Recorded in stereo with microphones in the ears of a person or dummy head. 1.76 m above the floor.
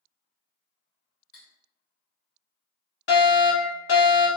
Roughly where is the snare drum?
I don't hear a snare drum.